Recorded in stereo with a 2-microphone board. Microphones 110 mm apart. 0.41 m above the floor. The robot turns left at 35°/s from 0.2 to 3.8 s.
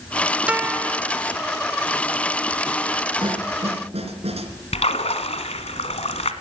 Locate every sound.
0.5 s a guitar: 10° right (ahead or behind), 1.1 m; by 1.0 s 25° right (ahead or behind), 1.1 m
3.2 s a snare drum: 50° right (ahead or behind), 3.5 m; by 4.5 s 70° right (ahead or behind), 3.5 m
4.7 s a splash: 75° left (ahead or behind), 1.6 m